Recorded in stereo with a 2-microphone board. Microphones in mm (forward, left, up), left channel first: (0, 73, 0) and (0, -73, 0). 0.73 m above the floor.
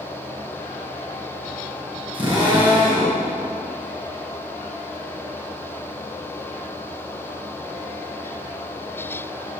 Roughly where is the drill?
Right.